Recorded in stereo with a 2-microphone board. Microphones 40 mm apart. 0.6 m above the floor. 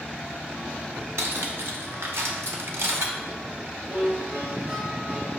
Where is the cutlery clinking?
75° right (ahead or behind), 0.9 m.